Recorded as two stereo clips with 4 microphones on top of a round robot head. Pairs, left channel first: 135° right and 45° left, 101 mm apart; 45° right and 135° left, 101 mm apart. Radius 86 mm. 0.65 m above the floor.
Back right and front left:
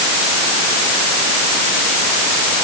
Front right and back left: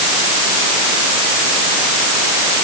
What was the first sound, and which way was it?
Only background noise.